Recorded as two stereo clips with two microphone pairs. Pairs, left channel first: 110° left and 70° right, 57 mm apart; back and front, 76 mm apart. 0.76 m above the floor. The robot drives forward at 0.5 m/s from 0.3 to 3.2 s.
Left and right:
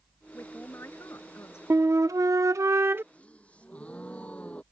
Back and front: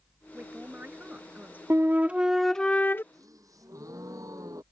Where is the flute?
50° right; by 3.0 s 120° right.